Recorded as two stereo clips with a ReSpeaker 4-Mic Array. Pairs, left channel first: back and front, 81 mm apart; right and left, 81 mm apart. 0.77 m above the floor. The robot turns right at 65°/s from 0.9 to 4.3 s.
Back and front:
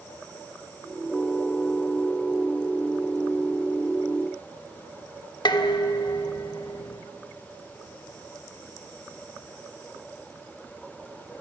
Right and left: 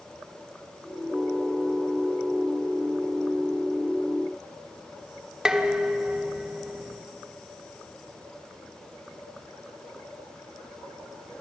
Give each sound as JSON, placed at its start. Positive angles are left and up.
{"t": 5.5, "sound": "dishes clattering", "azimuth_deg": 170, "distance_m": 1.3}